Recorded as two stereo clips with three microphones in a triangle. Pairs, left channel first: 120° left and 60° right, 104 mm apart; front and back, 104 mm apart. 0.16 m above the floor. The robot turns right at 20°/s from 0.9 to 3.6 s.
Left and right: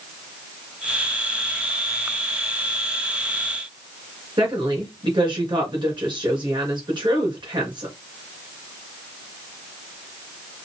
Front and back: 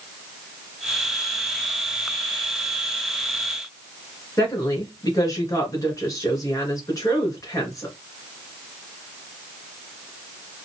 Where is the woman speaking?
40° right, 2 m.